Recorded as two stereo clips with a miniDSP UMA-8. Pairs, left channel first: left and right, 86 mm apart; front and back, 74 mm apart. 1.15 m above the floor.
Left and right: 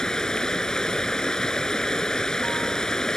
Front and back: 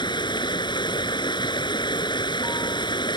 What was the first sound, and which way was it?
Running water, 10° left.